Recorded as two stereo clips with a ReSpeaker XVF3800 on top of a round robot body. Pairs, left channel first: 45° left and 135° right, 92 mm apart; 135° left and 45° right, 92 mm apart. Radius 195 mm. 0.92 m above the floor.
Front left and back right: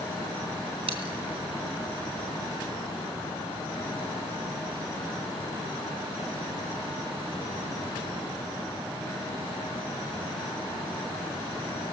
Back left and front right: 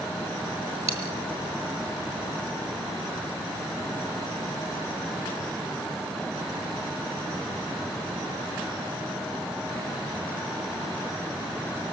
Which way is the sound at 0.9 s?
105° right.